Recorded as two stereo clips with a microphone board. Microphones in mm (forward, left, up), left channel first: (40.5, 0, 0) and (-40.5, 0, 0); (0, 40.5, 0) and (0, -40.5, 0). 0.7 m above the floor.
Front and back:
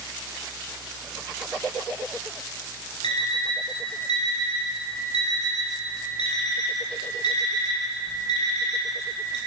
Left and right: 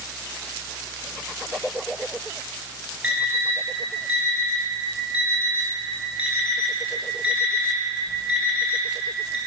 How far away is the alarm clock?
About 3 m.